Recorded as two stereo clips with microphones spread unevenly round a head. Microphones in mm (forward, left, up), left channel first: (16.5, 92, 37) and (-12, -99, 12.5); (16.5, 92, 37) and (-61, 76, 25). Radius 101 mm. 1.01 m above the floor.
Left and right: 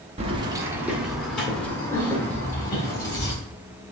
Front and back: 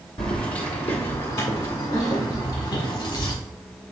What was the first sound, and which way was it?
Keys jangling, 40° right.